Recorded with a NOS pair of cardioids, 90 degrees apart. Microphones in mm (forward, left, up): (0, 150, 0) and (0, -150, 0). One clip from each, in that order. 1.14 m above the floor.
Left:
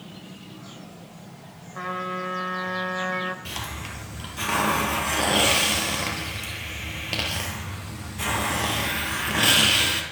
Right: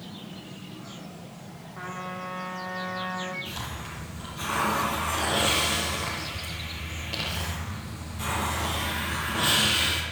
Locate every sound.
1.8 s a trumpet: 55° left, 3 m
3.5 s a hiss: 65° left, 7 m